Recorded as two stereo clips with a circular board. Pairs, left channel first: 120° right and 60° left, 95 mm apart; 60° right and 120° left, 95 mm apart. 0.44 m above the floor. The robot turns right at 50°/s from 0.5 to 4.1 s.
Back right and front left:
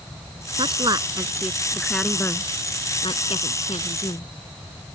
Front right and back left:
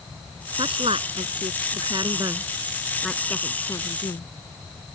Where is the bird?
No bird in this recording.